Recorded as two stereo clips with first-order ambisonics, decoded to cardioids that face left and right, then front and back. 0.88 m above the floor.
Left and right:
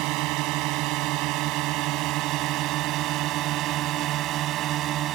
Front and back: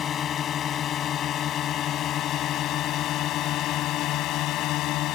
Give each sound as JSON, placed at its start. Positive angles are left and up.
{"t": 0.0, "sound": "a drone", "azimuth_deg": -60}